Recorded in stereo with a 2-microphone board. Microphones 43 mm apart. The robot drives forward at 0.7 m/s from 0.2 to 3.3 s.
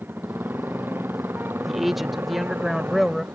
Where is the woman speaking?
5° right (ahead or behind); by 3.2 s centre (ahead or behind).